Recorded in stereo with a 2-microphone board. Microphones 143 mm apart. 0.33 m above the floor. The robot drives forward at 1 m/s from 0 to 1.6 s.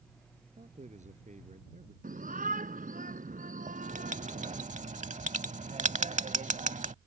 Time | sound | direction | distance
0.6 | a man speaking | 50° right (ahead or behind) | ?
2.0 | a shout | 75° right (ahead or behind) | ?
3.7 | writing | 60° right (ahead or behind) | ?